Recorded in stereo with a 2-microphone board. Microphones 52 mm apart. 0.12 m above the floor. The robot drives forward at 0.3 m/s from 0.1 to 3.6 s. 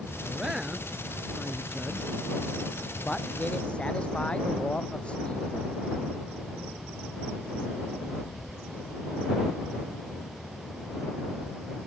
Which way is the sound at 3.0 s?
20° left (ahead or behind).